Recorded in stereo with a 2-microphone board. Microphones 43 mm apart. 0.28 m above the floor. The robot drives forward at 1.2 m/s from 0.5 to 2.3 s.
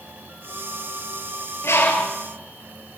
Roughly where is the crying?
No crying in this recording.